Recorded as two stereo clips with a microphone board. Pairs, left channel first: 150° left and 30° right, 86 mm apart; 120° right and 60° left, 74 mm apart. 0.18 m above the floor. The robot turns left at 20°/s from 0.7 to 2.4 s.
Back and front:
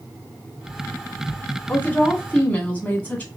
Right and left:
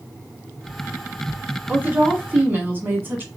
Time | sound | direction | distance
1.7 | a woman speaking | 110° left | 1.1 m